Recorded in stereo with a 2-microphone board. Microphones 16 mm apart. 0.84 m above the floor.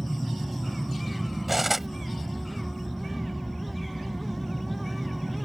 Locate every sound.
0.0 s an aircraft: 15° left (ahead or behind)
1.5 s cutlery clinking: 10° right (ahead or behind)